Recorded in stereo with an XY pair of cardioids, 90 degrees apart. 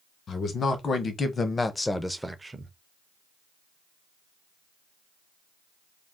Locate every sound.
0.3 s a man speaking: 60° left, 1.2 m; by 2.7 s 45° right, 0.6 m